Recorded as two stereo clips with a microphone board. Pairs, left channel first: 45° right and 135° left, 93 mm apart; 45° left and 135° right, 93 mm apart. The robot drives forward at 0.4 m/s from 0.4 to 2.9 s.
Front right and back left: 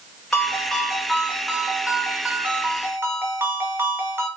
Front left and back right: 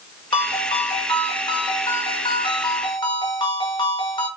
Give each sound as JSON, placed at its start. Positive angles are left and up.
{"t": 0.3, "sound": "a ringtone", "azimuth_deg": 40, "distance_m": 1.8}